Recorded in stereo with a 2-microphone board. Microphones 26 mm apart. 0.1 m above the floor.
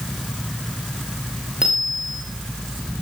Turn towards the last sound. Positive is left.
turn(degrees=-30)  # may be behind; listen again after turning